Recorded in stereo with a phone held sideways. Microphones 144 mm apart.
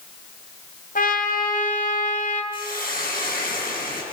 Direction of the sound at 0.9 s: 75° left (ahead or behind).